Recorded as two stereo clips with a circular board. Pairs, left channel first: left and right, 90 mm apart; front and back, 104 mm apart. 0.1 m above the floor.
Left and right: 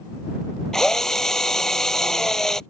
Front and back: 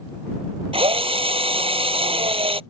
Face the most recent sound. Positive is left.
turn(degrees=175)